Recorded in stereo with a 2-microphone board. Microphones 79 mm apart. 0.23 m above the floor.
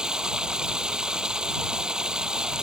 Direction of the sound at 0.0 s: 10° right (ahead or behind).